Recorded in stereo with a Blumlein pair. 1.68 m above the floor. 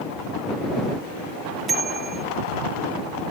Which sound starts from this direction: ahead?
A bicycle bell, at 1.7 s.